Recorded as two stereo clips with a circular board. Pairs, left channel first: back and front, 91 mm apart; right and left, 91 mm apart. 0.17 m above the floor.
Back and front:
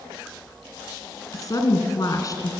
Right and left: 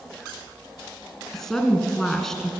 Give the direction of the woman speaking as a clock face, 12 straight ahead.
6 o'clock.